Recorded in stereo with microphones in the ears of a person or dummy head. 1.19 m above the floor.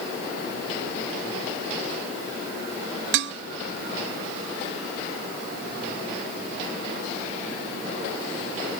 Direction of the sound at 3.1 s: 65° right (ahead or behind).